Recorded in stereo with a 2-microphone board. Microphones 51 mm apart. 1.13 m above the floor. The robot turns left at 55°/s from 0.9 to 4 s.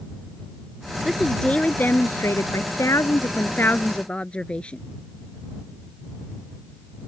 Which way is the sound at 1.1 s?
175° right.